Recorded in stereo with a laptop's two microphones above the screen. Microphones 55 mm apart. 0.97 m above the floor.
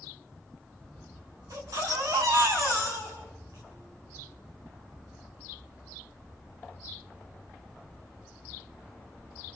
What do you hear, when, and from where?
1.5 s a baby crying: 90° right, 5.5 m